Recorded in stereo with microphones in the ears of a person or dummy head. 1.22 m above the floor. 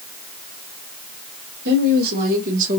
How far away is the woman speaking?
About 1.9 m.